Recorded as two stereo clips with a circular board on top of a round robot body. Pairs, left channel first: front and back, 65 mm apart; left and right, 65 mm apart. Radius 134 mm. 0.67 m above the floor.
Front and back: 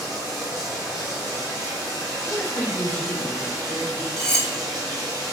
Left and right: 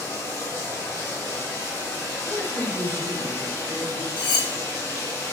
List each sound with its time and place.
0.0 s running water: 150° left, 1.8 m
2.2 s a woman speaking: 55° left, 1.0 m
4.2 s cutlery clinking: 80° left, 0.7 m